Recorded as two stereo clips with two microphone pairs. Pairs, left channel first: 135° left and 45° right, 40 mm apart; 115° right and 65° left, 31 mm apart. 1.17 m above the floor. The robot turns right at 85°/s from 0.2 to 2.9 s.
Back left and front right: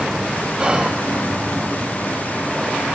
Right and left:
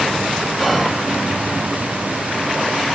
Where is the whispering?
30° right, 0.5 m; by 1.0 s straight ahead, 0.5 m.